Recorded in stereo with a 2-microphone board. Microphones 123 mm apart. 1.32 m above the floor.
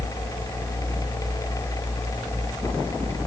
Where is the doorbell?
I don't hear a doorbell.